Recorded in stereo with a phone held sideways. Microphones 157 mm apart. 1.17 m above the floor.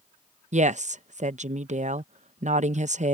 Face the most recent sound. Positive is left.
turn(degrees=-50)  # may be behind; listen again after turning